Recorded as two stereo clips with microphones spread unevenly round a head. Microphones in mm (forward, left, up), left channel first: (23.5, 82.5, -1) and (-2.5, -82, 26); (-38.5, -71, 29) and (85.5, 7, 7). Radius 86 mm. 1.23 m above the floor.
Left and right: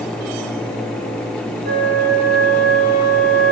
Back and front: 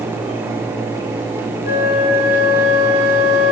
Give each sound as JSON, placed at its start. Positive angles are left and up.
{"t": 1.6, "sound": "a flute", "azimuth_deg": -140, "distance_m": 9.5}